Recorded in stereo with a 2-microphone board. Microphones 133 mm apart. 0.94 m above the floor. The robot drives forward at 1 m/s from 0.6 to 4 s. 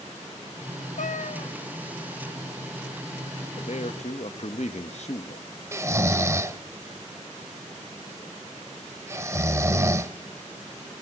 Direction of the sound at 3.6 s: 60° left (ahead or behind).